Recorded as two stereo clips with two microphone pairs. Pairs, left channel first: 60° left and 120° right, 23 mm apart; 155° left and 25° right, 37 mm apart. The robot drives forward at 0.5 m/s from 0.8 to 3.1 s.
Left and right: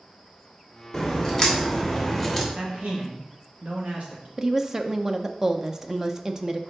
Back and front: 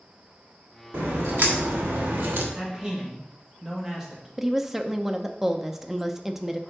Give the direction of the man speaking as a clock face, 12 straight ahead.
3 o'clock.